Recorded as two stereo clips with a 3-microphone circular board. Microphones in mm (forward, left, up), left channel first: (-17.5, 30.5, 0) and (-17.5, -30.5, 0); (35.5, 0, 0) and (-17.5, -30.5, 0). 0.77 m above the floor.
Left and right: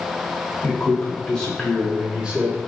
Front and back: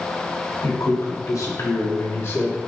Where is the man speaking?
30° left, 2 m; by 2.6 s 30° right, 1.4 m.